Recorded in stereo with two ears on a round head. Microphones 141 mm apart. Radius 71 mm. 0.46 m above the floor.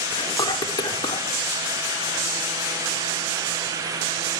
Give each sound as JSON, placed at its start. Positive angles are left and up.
{"t": 0.1, "sound": "whispering", "side_deg": 25, "distance_m": 0.9}